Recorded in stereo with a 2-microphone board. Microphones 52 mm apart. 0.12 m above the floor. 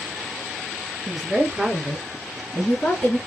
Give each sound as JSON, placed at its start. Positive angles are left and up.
{"t": 1.1, "sound": "a woman speaking", "side_deg": -20, "distance_m": 1.7}